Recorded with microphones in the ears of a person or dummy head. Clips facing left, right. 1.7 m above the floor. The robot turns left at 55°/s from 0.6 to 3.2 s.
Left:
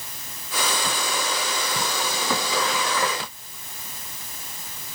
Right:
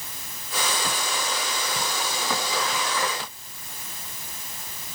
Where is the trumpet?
No trumpet in this recording.